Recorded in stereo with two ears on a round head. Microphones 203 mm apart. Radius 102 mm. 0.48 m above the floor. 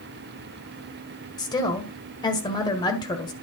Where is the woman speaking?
20° left (ahead or behind), 1.7 m.